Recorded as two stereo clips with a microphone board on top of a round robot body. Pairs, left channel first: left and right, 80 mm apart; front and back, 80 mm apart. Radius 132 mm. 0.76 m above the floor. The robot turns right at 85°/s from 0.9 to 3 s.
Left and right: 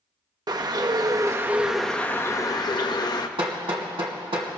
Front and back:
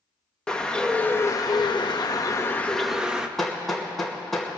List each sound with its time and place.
0.5 s a bird: 75° right, 1.0 m; by 3.3 s 100° left, 1.0 m
3.4 s hammering: 85° right, 2.5 m